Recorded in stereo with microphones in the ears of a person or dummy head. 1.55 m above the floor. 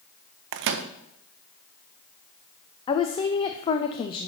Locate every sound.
0.5 s a microwave: 55° right (ahead or behind), 0.6 m
2.9 s a woman speaking: 30° left (ahead or behind), 0.5 m